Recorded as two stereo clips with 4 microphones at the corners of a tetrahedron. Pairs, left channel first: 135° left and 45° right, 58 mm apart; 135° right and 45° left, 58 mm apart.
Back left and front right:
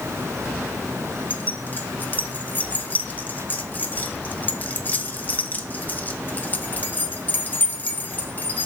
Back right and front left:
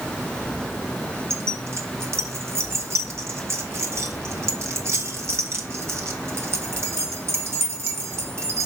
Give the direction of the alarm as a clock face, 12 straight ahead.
No alarm in this recording.